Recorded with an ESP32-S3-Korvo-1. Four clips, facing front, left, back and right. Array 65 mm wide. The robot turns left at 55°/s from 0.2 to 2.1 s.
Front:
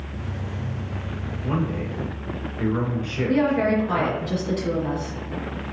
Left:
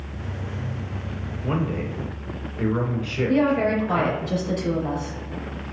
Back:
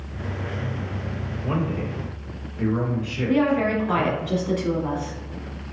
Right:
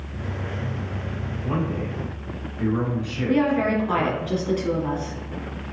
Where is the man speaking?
130° left, 1.8 m; by 4.3 s 90° left, 1.8 m.